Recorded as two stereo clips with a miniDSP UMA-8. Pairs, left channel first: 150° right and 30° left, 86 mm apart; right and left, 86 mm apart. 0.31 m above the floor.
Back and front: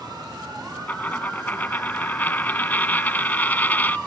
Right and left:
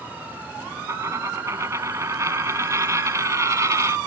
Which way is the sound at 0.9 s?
140° left.